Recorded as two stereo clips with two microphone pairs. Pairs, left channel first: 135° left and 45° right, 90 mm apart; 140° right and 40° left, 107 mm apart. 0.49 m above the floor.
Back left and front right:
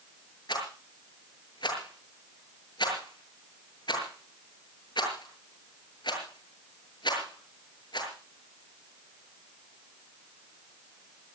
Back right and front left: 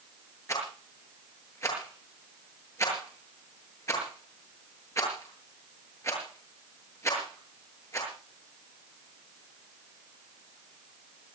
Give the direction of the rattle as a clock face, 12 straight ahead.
7 o'clock.